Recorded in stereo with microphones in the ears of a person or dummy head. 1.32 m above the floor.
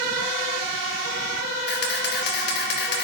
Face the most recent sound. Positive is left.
turn(degrees=60)  # may be behind; listen again after turning